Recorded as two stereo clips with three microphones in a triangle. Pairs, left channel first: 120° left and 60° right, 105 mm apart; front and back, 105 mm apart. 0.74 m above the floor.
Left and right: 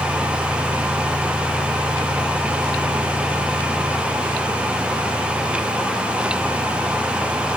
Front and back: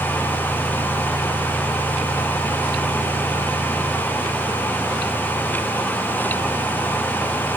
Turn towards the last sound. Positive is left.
No sound to turn to.